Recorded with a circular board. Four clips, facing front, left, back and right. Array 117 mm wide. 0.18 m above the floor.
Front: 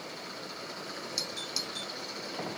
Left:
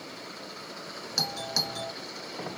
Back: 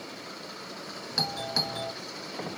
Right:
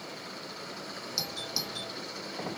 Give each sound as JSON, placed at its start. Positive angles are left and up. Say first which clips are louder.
{"t": 1.2, "sound": "a doorbell", "louder": "left 9 dB, back 8 dB", "azimuth_deg": 150}